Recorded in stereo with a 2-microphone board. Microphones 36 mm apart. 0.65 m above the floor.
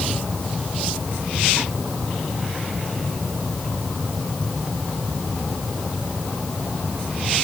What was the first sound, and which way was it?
Only background noise.